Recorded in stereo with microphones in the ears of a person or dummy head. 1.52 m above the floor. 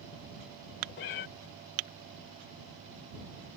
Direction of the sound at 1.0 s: 40° left (ahead or behind).